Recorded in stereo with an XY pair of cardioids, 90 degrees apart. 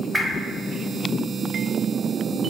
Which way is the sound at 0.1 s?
10° right.